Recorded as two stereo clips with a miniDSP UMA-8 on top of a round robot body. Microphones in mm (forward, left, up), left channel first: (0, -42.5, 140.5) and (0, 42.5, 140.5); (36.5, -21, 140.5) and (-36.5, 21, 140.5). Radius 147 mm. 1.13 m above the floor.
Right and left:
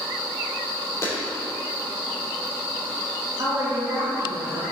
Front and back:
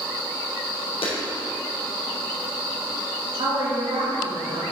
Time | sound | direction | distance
1.0 | a clap | 35° right | 3 m
3.4 | a woman speaking | 135° left | 2.5 m